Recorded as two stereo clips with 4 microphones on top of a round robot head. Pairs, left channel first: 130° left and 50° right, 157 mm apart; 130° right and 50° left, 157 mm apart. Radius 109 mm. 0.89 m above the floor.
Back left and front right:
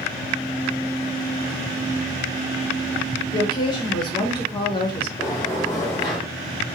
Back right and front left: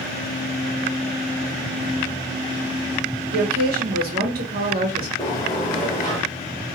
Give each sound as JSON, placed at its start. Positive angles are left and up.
{"t": 3.3, "sound": "a woman speaking", "azimuth_deg": 70, "distance_m": 1.1}
{"t": 5.2, "sound": "a sliding door", "azimuth_deg": 180, "distance_m": 0.6}